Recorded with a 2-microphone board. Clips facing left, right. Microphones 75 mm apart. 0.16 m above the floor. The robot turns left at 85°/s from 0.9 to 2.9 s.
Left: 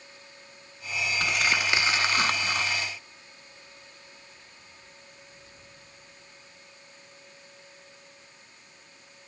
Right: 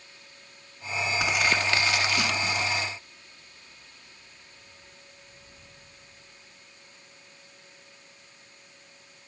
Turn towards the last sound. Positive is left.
turn(degrees=55)